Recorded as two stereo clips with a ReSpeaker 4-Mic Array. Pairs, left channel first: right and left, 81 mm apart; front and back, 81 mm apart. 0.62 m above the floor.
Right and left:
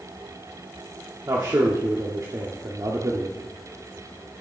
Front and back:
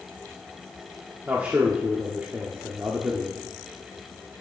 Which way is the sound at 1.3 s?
115° left.